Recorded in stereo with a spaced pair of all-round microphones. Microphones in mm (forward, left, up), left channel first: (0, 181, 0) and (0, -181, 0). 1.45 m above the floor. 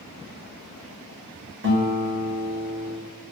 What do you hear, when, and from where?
1.6 s a guitar: 35° right (ahead or behind), 0.8 m